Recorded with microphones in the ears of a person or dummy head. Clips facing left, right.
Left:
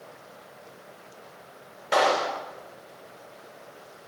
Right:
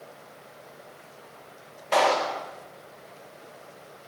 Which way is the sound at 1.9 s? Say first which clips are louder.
Even; 10° left (ahead or behind).